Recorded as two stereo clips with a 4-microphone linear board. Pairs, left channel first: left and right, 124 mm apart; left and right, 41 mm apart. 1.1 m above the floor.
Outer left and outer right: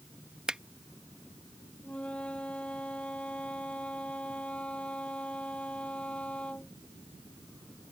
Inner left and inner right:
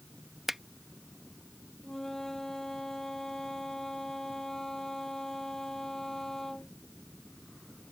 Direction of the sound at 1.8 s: 10° left (ahead or behind).